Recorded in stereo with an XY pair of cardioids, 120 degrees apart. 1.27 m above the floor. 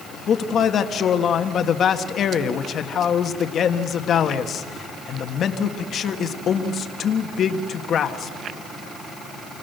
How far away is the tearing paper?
I don't hear tearing paper.